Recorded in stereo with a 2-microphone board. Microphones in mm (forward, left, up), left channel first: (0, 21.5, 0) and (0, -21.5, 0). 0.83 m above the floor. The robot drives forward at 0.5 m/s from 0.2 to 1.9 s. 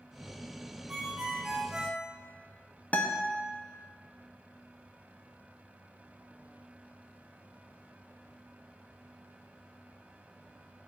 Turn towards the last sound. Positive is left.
turn(degrees=35)  # may be behind; listen again after turning